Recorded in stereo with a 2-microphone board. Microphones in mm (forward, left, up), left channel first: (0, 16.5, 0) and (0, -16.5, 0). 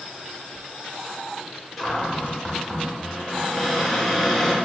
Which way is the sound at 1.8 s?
5° left (ahead or behind).